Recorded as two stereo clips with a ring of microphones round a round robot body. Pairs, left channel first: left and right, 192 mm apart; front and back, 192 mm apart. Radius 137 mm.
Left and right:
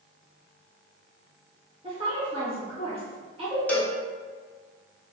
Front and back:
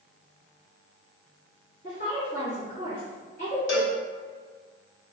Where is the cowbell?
5° left, 1.0 m.